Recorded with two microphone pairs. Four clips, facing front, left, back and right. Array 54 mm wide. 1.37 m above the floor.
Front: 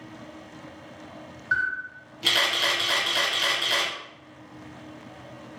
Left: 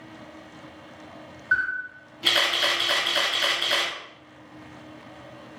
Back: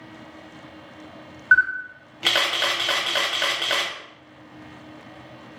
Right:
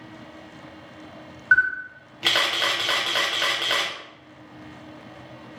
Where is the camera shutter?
140° right, 1.2 m.